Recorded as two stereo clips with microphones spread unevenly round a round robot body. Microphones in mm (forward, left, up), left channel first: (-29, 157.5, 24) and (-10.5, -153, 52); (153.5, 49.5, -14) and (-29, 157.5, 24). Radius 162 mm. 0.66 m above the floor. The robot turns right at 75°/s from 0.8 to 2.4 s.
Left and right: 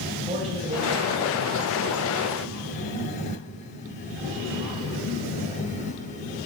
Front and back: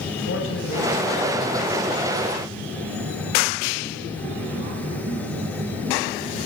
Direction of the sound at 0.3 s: 15° right.